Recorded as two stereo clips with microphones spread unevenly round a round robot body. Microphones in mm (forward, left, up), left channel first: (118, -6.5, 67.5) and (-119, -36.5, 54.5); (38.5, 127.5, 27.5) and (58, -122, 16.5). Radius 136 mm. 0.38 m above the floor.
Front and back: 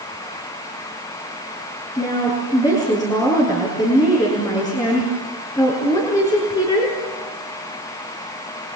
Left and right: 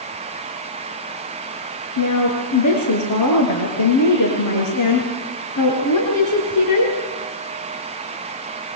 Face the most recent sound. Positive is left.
turn(degrees=85)